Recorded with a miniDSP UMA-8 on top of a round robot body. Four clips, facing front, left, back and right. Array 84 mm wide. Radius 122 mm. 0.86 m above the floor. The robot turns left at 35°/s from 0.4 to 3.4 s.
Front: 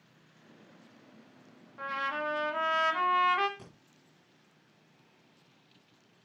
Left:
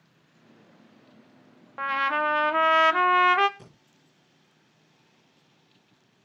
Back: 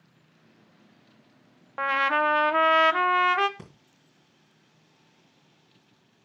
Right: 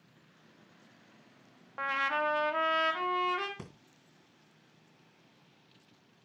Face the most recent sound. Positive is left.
turn(degrees=-120)